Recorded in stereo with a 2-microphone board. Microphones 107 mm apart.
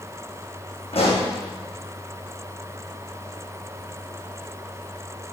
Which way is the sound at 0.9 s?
65° left (ahead or behind).